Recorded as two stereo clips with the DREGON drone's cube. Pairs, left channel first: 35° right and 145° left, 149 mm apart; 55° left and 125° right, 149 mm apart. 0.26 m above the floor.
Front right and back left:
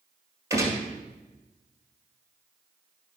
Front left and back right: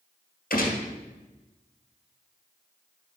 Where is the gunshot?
75° left, 1.9 m.